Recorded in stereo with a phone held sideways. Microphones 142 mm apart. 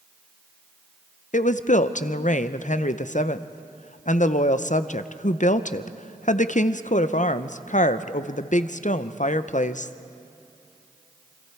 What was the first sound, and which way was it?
A woman speaking, 60° left (ahead or behind).